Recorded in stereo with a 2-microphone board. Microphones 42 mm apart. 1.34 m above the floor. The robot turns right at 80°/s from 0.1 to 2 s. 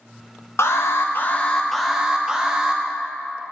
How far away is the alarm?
About 0.7 m.